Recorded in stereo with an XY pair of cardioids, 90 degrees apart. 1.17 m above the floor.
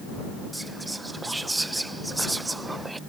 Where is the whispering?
15° right.